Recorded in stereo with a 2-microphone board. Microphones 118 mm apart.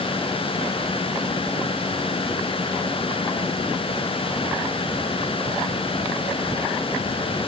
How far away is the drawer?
I don't hear a drawer.